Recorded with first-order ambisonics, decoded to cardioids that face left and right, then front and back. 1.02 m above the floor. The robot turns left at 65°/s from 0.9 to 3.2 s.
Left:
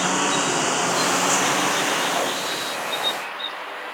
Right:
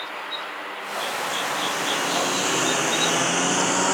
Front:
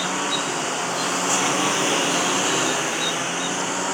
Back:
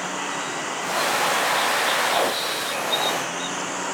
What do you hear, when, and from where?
0.0 s a lawn mower: 75° left; by 3.9 s 75° right